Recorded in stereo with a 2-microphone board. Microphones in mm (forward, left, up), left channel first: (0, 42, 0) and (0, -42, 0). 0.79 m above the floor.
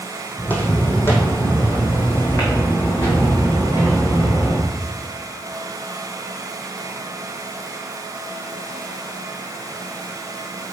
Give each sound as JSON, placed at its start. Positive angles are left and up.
{"t": 0.4, "sound": "footsteps", "side_deg": 20, "distance_m": 1.6}